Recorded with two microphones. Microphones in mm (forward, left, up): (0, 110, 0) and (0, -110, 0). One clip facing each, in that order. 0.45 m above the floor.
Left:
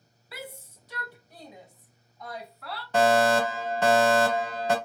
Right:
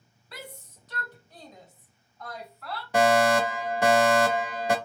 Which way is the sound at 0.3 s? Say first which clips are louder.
Left 2 dB; 5° left (ahead or behind).